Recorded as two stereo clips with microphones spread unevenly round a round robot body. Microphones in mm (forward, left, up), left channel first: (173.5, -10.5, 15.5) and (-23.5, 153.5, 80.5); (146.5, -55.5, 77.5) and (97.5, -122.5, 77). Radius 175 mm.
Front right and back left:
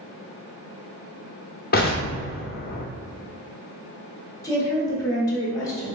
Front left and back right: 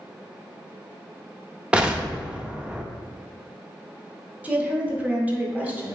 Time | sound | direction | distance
1.7 | an explosion | 50° right | 0.5 m
4.4 | a woman speaking | 70° right | 0.9 m